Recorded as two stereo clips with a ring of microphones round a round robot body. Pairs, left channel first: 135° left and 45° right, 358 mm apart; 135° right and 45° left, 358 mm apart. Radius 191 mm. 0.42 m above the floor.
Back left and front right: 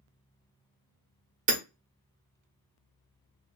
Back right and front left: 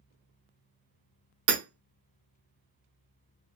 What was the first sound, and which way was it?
Hammering, 20° left.